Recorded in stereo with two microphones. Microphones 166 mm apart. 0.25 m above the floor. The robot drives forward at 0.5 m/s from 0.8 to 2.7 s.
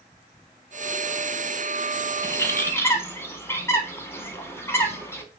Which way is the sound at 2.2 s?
20° left (ahead or behind).